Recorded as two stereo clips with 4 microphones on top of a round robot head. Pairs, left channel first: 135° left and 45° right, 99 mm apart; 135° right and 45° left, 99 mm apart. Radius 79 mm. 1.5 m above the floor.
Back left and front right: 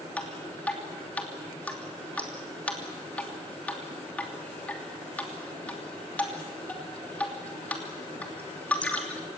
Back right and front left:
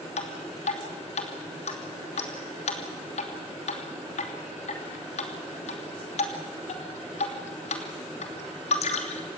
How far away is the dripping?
About 3 m.